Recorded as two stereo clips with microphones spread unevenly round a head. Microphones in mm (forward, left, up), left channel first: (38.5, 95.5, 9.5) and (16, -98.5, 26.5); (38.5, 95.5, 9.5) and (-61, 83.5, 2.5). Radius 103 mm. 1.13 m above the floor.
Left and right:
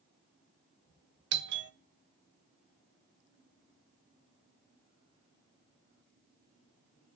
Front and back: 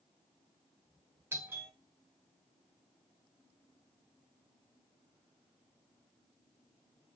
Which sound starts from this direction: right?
A doorbell, at 1.3 s.